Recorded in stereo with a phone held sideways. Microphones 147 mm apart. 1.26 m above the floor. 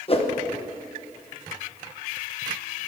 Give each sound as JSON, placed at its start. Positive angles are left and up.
{"t": 0.1, "sound": "a whoosh", "side_deg": 40, "distance_m": 1.2}